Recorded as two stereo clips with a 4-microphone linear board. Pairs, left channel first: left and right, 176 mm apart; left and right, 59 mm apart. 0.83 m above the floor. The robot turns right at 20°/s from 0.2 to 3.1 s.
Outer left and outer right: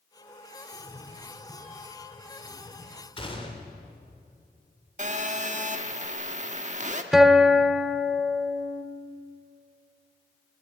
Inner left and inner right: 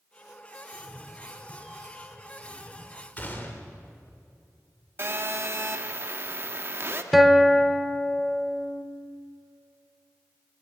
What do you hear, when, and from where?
0.7 s a cat meowing: 10° right, 3 m; by 3.1 s 40° left, 3 m
3.2 s a gunshot: 30° left (ahead or behind), 2.5 m
5.0 s a phone buzzing: 45° right (ahead or behind), 1.3 m
7.1 s a guitar: centre (ahead or behind), 1.2 m